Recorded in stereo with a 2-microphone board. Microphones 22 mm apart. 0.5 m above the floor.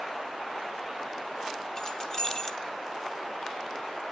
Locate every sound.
1.8 s keys jangling: 25° left (ahead or behind), 0.8 m